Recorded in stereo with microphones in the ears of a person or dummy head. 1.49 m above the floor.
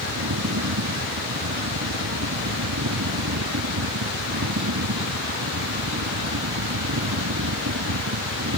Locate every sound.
0.0 s a fan: 80° right